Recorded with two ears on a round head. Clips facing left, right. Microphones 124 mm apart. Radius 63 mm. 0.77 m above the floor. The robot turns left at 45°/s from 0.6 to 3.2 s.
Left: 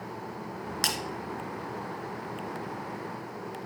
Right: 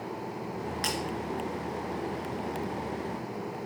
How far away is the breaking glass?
About 1.9 m.